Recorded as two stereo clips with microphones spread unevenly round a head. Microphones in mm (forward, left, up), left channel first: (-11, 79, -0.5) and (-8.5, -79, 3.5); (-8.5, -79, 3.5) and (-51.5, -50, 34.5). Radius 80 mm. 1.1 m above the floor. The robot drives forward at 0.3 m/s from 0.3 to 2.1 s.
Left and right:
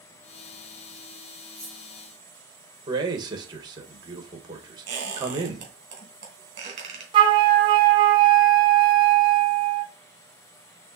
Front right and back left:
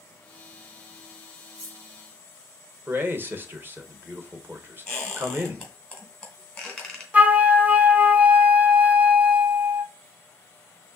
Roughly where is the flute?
Right.